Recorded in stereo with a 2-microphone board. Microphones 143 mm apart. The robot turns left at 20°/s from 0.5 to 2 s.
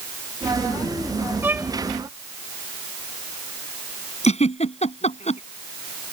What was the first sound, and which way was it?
A violin, 15° right (ahead or behind).